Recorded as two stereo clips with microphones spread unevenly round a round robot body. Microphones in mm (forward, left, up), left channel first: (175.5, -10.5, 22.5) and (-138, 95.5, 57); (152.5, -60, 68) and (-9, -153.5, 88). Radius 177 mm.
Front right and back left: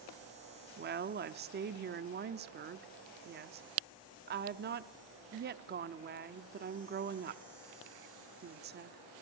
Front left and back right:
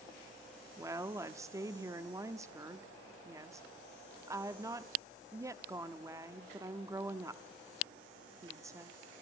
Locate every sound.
0.8 s a woman speaking: 145° left, 0.7 m